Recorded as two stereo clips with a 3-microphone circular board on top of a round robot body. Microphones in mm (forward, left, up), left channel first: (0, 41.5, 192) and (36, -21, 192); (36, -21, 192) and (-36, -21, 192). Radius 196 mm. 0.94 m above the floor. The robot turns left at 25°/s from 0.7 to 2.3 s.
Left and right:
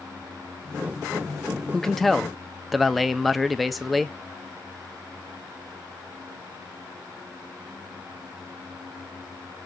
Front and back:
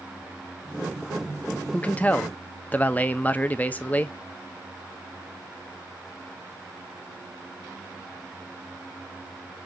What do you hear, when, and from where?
1.7 s a man speaking: 45° left, 0.7 m; by 4.2 s 30° left, 0.7 m